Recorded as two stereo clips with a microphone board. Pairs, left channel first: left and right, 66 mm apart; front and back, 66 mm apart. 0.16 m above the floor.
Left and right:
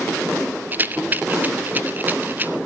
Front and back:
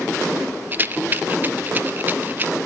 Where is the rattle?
135° right, 0.8 m.